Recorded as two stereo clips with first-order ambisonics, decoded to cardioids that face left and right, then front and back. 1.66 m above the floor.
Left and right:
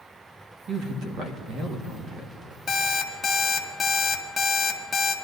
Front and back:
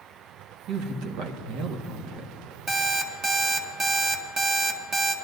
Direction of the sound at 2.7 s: 140° left.